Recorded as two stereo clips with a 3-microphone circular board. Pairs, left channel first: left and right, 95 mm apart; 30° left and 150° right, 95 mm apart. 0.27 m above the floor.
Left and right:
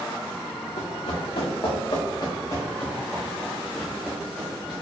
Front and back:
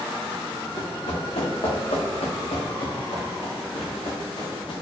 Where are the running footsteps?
65° left, 1.6 m; by 4.8 s 10° right, 2 m.